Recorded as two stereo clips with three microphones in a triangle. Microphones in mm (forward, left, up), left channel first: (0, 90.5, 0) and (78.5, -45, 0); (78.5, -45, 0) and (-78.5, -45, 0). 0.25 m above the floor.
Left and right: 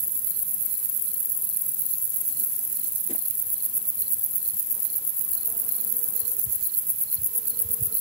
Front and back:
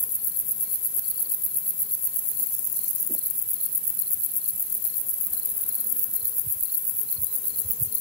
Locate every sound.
Only background noise.